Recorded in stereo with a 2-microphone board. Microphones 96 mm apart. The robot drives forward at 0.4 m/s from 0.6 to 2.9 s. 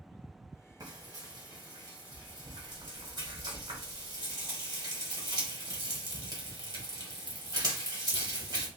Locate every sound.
0.8 s frying: 40° right (ahead or behind), 1.2 m; by 8.7 s 45° right (ahead or behind), 1.1 m